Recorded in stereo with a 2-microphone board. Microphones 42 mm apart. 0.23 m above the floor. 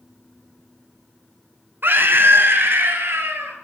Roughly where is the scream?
Right.